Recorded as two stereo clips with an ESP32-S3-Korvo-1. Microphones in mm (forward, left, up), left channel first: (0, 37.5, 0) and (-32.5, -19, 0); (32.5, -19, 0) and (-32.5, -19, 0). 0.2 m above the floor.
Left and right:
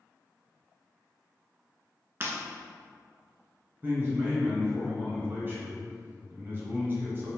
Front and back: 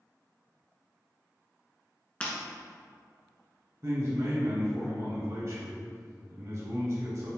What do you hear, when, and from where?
2.2 s breaking glass: 70° right, 1.0 m
3.8 s a man speaking: 165° right, 1.4 m